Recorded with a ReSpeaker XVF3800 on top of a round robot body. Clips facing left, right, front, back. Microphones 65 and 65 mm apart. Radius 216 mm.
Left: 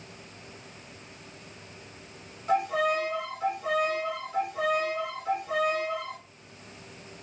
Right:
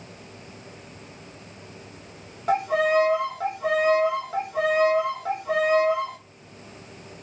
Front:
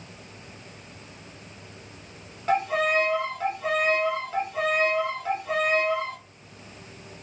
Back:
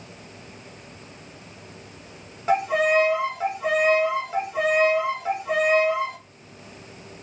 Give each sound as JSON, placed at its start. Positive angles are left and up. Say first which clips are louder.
{"t": 2.5, "sound": "a violin", "louder": "right 4 dB, back 3 dB", "azimuth_deg": -105, "distance_m": 0.8}